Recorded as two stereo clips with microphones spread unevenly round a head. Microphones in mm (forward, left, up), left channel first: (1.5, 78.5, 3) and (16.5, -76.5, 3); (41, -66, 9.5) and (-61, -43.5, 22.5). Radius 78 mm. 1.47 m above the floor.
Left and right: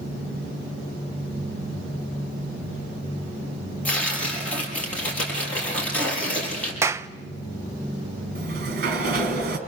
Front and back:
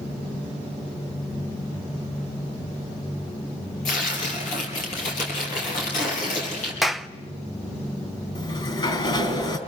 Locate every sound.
3.9 s tearing paper: 15° left, 6.5 m
6.8 s a clap: 125° right, 0.5 m
8.3 s a sliding door: 60° right, 3.5 m